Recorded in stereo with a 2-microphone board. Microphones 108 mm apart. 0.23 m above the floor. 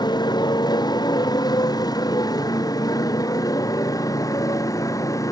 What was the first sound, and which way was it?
A motorcycle, 40° left (ahead or behind).